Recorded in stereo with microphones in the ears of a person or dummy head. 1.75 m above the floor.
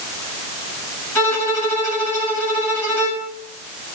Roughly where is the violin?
Centre.